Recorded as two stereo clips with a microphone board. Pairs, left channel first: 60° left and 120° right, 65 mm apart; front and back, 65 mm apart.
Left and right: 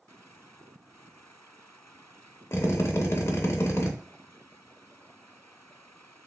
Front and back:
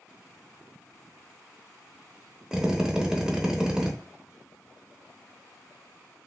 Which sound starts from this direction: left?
A drill, at 2.5 s.